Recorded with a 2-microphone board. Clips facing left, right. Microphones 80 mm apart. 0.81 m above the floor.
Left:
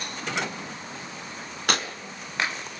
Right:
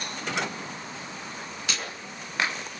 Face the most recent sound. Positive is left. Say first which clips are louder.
# left 8 dB
turn(degrees=60)  # may be behind; listen again after turning